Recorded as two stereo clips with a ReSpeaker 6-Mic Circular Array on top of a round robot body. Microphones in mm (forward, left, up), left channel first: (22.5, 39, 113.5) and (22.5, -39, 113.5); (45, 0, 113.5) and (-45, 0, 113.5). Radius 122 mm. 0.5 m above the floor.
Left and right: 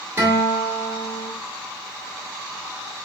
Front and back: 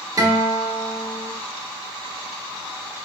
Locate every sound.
0.2 s a guitar: 140° right, 1.8 m